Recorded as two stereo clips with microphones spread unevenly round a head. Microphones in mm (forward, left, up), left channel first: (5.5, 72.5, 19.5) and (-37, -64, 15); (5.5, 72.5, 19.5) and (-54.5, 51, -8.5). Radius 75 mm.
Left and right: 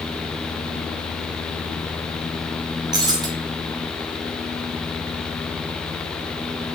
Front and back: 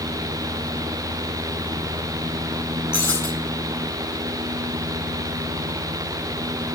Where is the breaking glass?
40° right, 5 m.